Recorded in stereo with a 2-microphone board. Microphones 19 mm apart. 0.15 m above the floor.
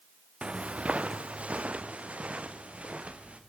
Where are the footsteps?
65° right (ahead or behind), 0.6 m; by 3.4 s 80° right, 2.5 m.